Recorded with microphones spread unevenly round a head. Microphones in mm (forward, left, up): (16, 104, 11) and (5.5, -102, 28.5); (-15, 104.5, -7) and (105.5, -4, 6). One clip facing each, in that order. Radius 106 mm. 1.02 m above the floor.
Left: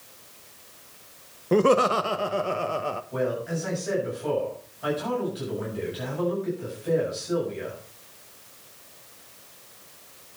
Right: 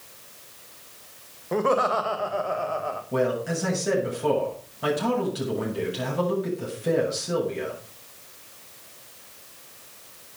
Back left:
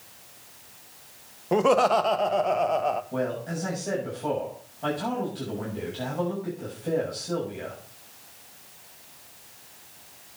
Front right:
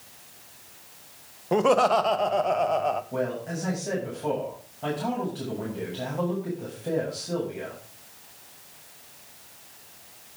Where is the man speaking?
130° right, 7.5 m.